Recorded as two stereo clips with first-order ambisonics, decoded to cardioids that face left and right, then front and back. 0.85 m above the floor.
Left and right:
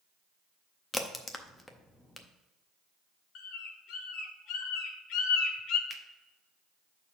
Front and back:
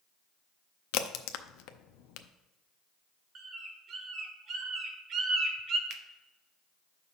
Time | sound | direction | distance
0.9 | a crack | 10° left | 0.6 m
3.4 | a bird | 125° left | 1.0 m
5.9 | a finger snap | 175° right | 0.7 m